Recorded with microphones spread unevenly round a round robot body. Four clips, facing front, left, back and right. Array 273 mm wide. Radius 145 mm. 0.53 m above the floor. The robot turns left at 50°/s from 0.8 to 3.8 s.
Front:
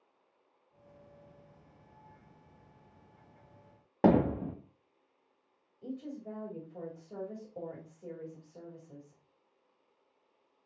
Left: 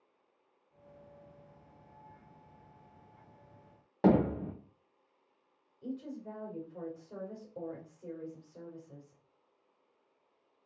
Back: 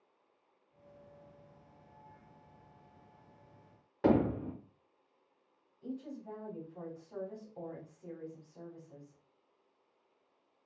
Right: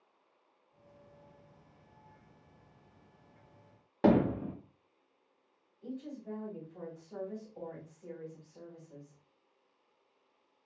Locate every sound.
4.0 s hammering: 5° right, 1.1 m
5.8 s a woman speaking: 35° left, 2.5 m